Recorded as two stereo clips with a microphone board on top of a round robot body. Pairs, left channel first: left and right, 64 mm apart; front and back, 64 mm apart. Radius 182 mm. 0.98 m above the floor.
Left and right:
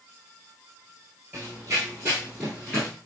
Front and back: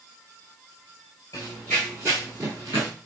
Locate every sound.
1.3 s running footsteps: 30° right, 1.0 m; by 2.9 s 175° right, 1.1 m